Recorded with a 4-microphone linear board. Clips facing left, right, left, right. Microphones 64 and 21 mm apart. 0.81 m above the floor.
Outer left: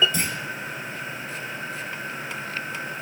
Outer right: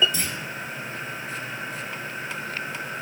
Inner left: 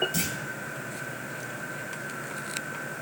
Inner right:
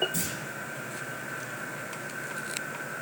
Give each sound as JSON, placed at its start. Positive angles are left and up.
{"t": 0.1, "sound": "a clunk", "side_deg": 45, "distance_m": 3.0}